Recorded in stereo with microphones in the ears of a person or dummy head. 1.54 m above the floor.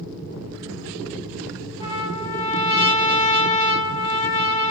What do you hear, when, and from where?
1.8 s a trumpet: 25° left (ahead or behind), 0.9 m